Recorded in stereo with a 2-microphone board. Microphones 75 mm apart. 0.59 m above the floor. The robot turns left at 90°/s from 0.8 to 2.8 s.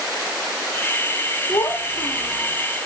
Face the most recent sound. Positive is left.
turn(degrees=-15)